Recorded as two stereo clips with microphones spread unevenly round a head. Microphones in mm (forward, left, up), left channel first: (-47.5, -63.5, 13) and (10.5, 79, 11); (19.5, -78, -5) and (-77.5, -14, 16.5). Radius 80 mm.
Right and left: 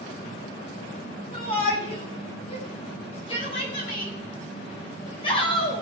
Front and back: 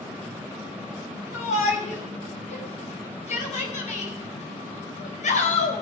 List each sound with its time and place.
1.3 s a shout: 55° right, 7 m; by 5.8 s 50° right, 4 m